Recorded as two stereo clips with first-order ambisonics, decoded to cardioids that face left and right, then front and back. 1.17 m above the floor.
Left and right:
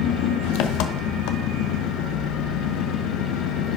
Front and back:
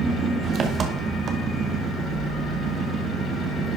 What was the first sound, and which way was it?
An engine running, 115° left.